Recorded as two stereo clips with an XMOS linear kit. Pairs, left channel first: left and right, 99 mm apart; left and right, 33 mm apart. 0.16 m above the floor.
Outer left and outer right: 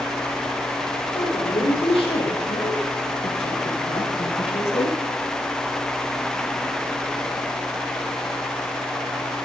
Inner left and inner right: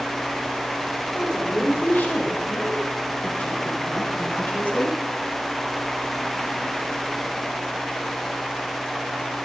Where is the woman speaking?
75° left (ahead or behind), 6 m; by 5.0 s 70° left (ahead or behind), 4.5 m.